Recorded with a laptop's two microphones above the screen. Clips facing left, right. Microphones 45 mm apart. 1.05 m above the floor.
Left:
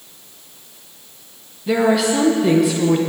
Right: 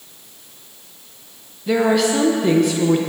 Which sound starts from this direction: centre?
A woman speaking, at 1.7 s.